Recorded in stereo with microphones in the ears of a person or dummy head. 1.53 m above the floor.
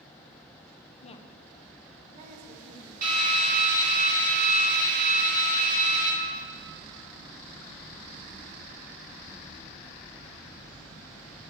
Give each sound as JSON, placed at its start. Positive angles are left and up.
{"t": 1.0, "sound": "a woman speaking", "side_deg": 40, "distance_m": 0.7}
{"t": 3.0, "sound": "a drill", "side_deg": -45, "distance_m": 2.5}